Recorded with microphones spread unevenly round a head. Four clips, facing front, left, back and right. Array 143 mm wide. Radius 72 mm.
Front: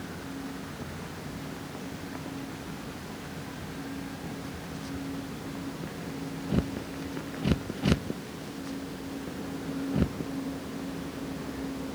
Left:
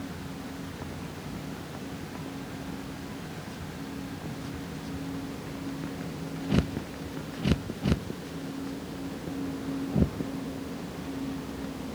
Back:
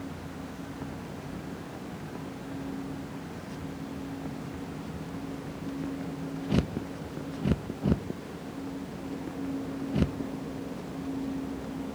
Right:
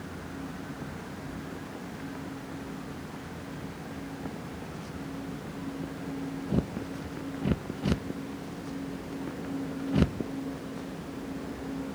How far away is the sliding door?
I don't hear a sliding door.